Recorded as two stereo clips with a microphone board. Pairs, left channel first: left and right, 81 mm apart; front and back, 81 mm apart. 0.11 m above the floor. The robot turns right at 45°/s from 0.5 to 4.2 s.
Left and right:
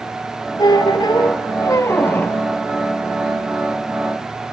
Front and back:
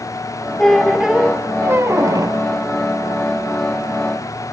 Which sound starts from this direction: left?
A squeak, at 0.6 s.